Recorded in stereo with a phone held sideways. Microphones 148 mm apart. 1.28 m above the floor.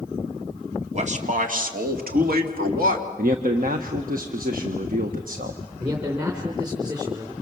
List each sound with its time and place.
0.9 s a man speaking: 50° right (ahead or behind), 3 m; by 3.1 s 75° right (ahead or behind), 3 m
3.2 s a man speaking: 70° right (ahead or behind), 1.4 m
5.8 s a man speaking: 25° right (ahead or behind), 3.5 m